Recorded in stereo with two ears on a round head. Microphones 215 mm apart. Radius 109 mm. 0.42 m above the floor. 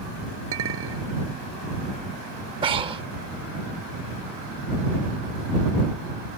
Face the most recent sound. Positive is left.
turn(degrees=-20)  # may be behind; listen again after turning